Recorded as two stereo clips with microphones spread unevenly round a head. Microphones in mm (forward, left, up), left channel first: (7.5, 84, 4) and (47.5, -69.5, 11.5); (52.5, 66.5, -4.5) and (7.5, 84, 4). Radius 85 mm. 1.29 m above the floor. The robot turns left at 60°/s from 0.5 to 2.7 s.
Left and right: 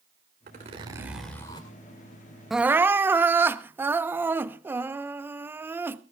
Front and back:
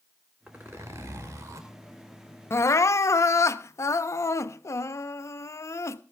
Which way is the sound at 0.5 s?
120° right.